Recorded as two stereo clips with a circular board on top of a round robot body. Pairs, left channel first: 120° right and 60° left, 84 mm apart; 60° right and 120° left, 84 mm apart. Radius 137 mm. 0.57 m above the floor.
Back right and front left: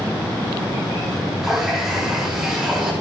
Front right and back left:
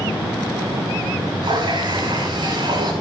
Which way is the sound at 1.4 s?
145° left.